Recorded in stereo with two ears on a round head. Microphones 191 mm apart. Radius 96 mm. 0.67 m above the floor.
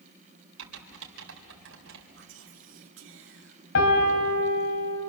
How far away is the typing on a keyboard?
About 3 m.